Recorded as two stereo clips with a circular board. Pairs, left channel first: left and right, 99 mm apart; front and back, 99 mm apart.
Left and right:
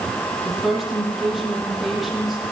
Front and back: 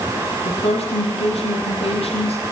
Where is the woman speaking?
Straight ahead, 8.5 m.